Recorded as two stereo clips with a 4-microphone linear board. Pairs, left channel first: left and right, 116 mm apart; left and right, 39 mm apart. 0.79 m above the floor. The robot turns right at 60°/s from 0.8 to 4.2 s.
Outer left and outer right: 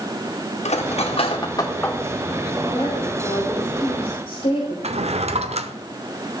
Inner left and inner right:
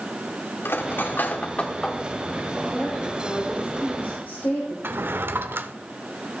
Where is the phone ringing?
I don't hear a phone ringing.